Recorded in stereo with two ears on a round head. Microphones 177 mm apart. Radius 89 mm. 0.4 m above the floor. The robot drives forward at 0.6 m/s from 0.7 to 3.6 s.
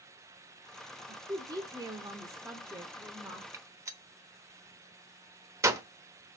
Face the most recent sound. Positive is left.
turn(degrees=-15)  # may be behind; listen again after turning